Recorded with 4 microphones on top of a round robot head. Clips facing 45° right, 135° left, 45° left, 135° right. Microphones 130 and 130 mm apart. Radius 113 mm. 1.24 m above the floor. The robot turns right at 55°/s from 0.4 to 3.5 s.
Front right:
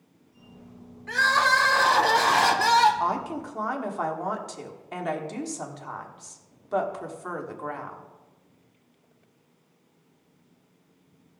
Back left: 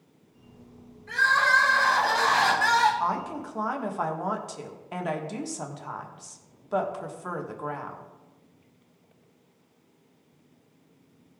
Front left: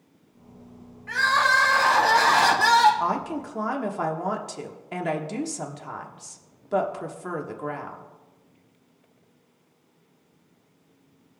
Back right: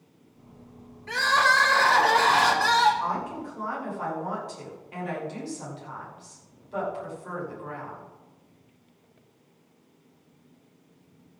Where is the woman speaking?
25° left, 1.5 m; by 8.1 s 50° left, 1.5 m.